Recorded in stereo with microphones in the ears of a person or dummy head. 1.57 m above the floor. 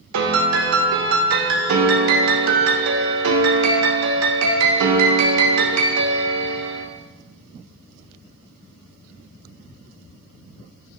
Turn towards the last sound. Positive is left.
turn(degrees=-75)  # may be behind; listen again after turning